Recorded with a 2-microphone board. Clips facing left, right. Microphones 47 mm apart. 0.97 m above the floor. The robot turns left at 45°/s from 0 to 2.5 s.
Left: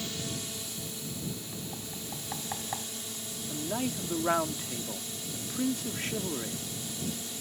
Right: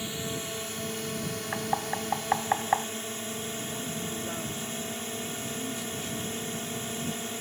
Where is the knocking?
85° right; by 2.9 s 45° right (ahead or behind).